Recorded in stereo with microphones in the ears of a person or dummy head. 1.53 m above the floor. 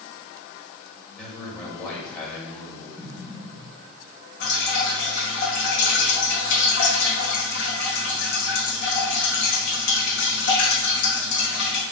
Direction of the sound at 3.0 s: 5° right (ahead or behind).